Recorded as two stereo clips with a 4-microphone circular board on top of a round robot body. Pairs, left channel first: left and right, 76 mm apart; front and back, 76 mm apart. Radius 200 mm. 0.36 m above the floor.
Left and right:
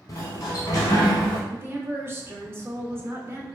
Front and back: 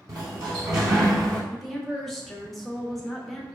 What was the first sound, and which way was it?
A sliding door, 135° left.